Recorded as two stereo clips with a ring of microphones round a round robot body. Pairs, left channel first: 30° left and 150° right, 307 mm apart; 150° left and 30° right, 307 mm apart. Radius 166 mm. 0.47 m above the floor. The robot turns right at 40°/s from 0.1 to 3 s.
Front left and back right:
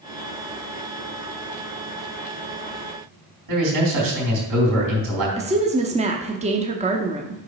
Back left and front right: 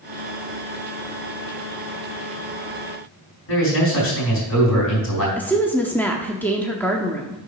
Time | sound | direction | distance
3.5 | a man speaking | 165° right | 4 m
5.4 | a woman speaking | 135° right | 0.7 m